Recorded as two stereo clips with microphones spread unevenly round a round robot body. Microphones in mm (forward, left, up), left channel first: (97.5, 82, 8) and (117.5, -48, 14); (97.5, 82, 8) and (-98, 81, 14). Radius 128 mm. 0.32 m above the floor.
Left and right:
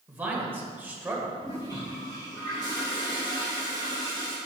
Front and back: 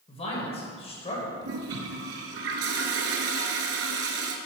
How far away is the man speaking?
About 1.7 m.